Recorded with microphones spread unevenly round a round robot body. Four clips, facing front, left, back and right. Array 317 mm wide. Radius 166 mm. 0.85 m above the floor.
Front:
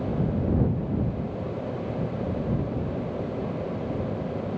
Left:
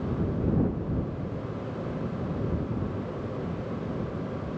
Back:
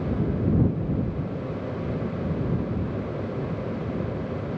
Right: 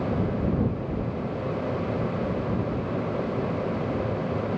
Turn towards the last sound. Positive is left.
No sound to turn to.